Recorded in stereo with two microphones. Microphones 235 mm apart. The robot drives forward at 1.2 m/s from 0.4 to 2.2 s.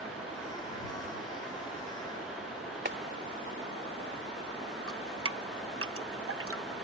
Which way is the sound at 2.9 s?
45° right (ahead or behind).